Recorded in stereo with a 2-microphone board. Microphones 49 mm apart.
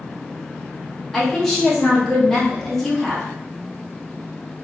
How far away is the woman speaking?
About 1.2 m.